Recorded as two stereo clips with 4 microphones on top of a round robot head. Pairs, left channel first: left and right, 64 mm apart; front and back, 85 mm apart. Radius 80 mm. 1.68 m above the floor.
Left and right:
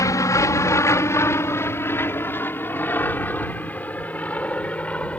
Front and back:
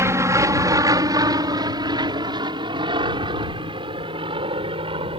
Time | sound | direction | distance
0.0 | an aircraft | 125° left | ?